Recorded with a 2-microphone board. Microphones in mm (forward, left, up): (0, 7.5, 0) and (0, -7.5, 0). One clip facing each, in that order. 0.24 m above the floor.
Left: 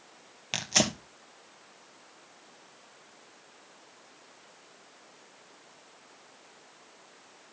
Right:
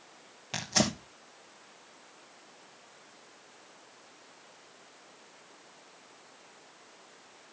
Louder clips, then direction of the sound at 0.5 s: Left 2 dB; 40° left (ahead or behind).